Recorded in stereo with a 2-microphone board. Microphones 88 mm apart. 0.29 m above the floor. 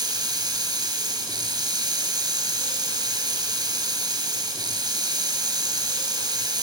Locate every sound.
0.0 s running water: 50° right (ahead or behind), 1.5 m